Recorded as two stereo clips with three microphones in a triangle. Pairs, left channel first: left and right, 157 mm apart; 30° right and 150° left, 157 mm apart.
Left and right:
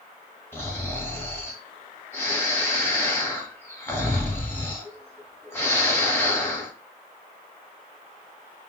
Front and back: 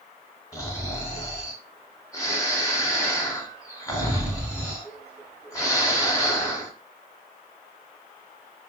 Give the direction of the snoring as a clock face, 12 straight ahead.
11 o'clock.